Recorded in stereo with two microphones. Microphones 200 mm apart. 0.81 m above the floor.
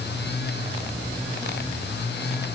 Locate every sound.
Only background noise.